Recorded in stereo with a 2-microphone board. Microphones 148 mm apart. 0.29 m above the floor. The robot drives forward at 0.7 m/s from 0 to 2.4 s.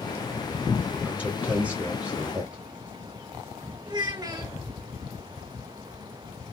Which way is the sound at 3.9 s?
25° right (ahead or behind).